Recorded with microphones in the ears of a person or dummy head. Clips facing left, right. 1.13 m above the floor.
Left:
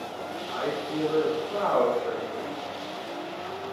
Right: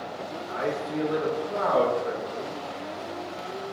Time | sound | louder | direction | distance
0.5 | a man speaking | right 1 dB | 5° right (ahead or behind) | 0.7 m